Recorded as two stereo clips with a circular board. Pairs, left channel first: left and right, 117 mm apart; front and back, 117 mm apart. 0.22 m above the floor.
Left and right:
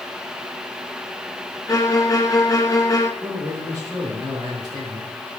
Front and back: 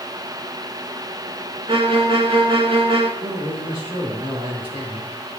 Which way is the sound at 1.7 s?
150° left.